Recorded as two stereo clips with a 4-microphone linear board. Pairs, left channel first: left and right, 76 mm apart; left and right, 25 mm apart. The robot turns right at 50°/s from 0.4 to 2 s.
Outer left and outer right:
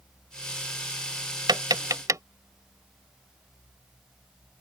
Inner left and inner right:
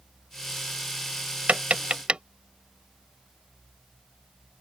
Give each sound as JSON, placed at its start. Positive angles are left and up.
{"t": 1.5, "sound": "tapping", "side_deg": -75}